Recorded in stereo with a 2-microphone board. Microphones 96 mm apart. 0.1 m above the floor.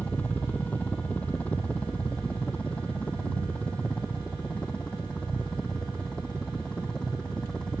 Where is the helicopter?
15° left (ahead or behind); by 7.8 s 10° left (ahead or behind).